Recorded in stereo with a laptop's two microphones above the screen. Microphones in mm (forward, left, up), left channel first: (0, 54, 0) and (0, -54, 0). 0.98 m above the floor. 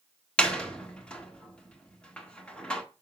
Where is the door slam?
10° left (ahead or behind), 1.5 m.